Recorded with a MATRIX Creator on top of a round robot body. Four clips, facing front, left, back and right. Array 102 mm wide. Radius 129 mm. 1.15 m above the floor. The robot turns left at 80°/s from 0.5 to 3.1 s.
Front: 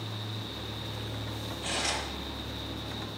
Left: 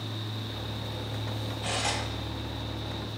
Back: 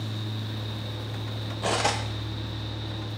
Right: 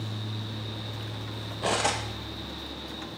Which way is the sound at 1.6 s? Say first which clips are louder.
Right 6 dB, back 9 dB; 130° right.